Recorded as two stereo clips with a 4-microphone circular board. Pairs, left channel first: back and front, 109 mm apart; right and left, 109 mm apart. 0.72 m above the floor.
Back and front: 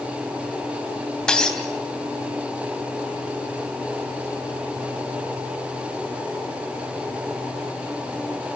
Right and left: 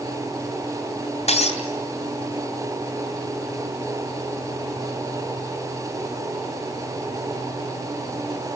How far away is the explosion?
I don't hear an explosion.